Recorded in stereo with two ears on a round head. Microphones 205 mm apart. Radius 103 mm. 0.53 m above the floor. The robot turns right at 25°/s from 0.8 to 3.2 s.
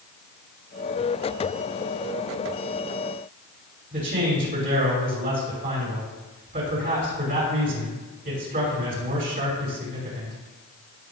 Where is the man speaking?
45° right (ahead or behind), 5.5 m.